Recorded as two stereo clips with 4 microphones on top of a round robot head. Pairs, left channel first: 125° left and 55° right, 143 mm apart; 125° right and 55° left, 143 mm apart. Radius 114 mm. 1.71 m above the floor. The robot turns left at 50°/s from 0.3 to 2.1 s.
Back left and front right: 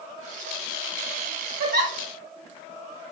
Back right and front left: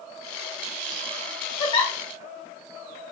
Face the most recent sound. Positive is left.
turn(degrees=-90)